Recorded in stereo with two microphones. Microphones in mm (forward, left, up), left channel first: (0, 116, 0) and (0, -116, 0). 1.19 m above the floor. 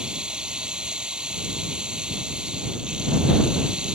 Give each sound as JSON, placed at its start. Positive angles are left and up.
{"t": 0.0, "sound": "running water", "side_deg": -5}